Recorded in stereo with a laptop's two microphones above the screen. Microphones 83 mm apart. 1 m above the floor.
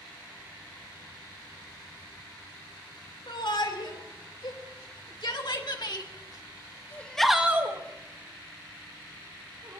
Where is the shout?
80° left, 4 m; by 9.8 s 65° right (ahead or behind), 2.5 m.